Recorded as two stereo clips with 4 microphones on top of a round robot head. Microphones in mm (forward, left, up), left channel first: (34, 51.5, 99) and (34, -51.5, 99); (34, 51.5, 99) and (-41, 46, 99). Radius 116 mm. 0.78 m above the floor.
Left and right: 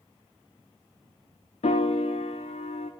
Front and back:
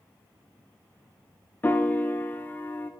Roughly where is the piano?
Left.